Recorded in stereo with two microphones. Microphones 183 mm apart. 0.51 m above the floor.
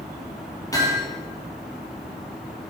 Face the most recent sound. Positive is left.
turn(degrees=20)  # may be behind; listen again after turning